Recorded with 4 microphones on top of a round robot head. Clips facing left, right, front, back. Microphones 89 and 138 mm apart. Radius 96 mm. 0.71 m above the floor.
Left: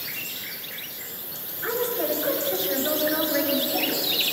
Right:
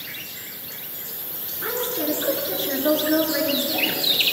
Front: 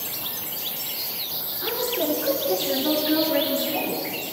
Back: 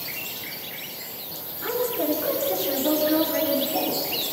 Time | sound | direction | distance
1.6 | a woman speaking | 65° right | 9.5 m